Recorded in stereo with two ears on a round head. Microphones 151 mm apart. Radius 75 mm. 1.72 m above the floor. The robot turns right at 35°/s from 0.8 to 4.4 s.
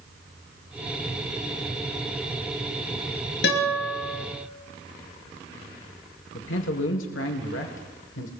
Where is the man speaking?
85° left, 1.6 m.